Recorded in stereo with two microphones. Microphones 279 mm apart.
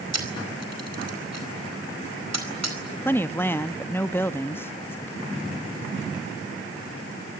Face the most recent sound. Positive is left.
turn(degrees=10)  # may be behind; listen again after turning